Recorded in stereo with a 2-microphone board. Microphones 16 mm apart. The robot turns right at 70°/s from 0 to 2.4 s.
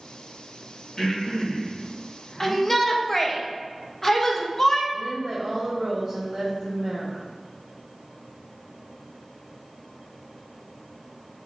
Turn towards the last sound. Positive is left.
turn(degrees=-45)  # may be behind; listen again after turning